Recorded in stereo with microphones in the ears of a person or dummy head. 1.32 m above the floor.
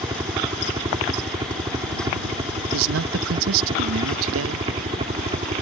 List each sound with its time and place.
0.0 s a helicopter: 20° right (ahead or behind); by 5.6 s 30° right (ahead or behind)
2.7 s a man speaking: 80° right